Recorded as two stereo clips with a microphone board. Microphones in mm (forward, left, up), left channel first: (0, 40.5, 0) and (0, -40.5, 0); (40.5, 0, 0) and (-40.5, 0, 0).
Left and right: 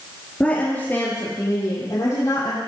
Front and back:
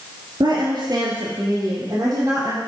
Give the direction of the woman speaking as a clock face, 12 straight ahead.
6 o'clock.